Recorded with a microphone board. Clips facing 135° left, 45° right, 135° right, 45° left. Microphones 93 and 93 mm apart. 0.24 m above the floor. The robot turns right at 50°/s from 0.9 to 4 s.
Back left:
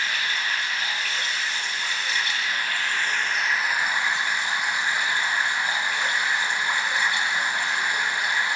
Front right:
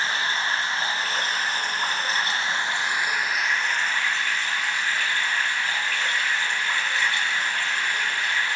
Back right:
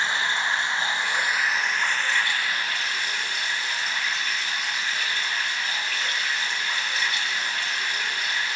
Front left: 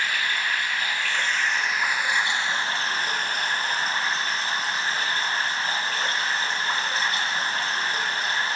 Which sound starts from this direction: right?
Running water, at 0.0 s.